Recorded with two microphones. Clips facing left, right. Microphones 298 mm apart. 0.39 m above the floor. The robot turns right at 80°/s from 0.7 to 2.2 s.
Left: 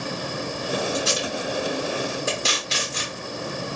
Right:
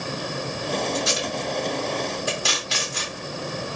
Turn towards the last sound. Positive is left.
turn(degrees=25)  # may be behind; listen again after turning